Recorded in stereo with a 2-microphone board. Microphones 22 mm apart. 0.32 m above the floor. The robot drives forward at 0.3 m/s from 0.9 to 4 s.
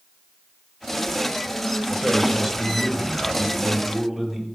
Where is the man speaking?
20° right (ahead or behind), 1.2 m; by 4.5 s 15° right (ahead or behind), 1.7 m.